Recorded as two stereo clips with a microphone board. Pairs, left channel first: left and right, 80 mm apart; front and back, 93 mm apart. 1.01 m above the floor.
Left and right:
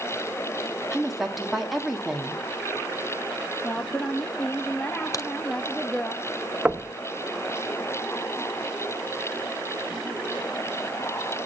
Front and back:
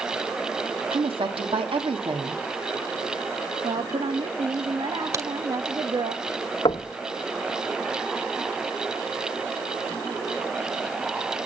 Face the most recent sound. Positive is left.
turn(degrees=-20)